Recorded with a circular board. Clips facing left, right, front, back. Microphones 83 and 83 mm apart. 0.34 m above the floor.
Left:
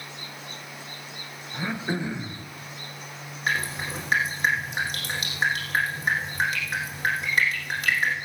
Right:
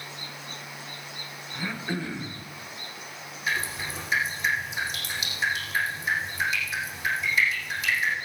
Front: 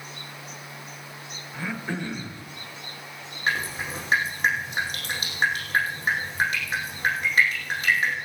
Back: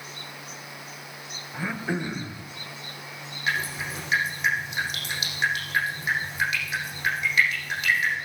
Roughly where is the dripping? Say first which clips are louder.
Left 2 dB, front 1 dB; ahead left.